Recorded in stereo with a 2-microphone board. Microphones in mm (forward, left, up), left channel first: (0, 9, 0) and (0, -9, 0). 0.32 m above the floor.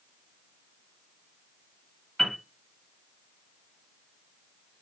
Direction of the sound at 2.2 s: 10° left (ahead or behind).